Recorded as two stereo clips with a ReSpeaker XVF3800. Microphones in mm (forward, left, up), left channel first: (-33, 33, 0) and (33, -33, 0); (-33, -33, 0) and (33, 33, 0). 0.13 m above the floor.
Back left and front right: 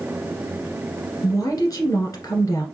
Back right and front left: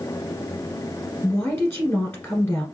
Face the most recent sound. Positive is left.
turn(degrees=160)